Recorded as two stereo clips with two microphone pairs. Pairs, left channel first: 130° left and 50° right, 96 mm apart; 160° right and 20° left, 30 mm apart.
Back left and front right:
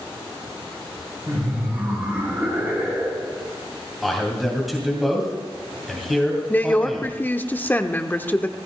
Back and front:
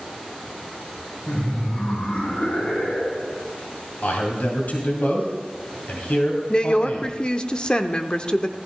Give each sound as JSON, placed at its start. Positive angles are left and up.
{"t": 1.3, "sound": "laughter", "azimuth_deg": -115, "distance_m": 4.5}
{"t": 4.0, "sound": "a man speaking", "azimuth_deg": -140, "distance_m": 2.5}
{"t": 6.5, "sound": "a woman speaking", "azimuth_deg": -175, "distance_m": 0.8}